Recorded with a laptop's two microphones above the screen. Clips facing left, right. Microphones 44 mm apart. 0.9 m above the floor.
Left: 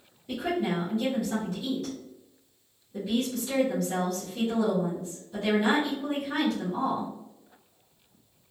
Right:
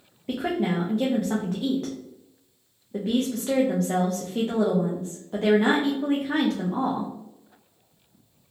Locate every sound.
0.3 s a woman speaking: 50° right (ahead or behind), 0.6 m